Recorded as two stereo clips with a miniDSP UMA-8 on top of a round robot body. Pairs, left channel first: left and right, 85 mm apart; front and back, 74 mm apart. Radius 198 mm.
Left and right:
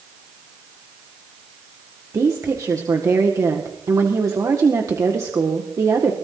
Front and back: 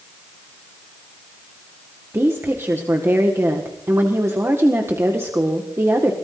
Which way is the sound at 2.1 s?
130° right.